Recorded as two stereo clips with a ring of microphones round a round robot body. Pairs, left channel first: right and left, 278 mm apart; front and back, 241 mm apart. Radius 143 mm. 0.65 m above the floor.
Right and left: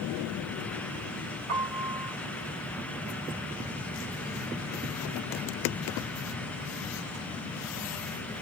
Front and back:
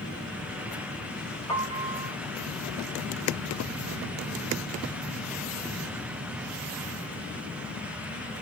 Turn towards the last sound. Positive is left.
turn(degrees=80)